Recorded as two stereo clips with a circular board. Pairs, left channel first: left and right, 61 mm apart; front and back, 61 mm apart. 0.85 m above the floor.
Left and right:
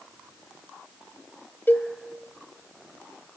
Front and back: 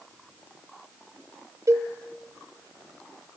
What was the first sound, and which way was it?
A cowbell, 145° left.